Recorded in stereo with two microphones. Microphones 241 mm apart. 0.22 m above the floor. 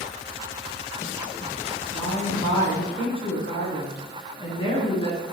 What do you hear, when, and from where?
1.9 s a woman speaking: 20° left (ahead or behind), 3 m